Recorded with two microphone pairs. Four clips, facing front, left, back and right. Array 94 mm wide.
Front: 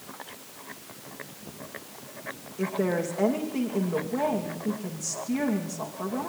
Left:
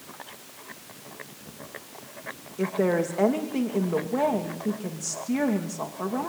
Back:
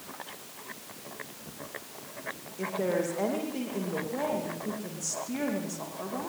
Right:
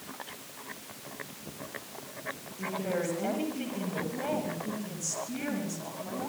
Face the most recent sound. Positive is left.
turn(degrees=85)